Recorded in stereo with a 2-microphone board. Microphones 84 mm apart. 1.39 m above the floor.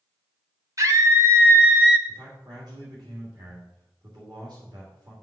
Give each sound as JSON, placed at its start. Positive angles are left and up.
{"t": 0.8, "sound": "a scream", "side_deg": -40, "distance_m": 1.4}
{"t": 2.1, "sound": "a man speaking", "side_deg": -55, "distance_m": 2.5}